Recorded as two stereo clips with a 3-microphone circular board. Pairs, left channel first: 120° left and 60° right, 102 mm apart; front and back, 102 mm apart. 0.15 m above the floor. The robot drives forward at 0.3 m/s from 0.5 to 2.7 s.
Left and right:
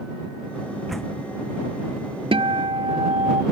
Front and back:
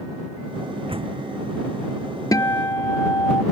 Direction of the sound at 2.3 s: 50° right.